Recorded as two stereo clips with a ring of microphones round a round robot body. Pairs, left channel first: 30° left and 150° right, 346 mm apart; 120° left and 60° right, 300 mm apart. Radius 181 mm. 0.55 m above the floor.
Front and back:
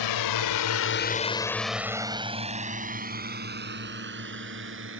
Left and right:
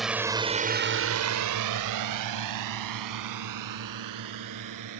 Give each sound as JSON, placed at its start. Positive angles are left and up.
{"t": 0.0, "sound": "a drone", "azimuth_deg": 30}